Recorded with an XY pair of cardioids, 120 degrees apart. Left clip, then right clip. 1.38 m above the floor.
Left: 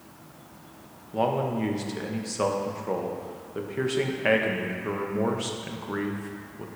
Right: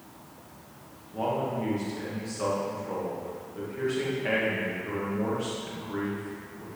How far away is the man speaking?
About 1.2 m.